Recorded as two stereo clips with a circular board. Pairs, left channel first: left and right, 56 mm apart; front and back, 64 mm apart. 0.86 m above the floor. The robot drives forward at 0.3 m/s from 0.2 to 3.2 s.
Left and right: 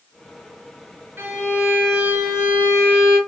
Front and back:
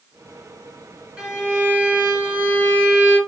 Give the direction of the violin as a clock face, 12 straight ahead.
4 o'clock.